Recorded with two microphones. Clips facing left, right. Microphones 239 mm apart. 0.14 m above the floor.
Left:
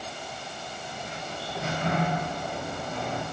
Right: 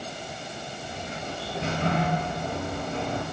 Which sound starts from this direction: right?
A sliding door, at 0.8 s.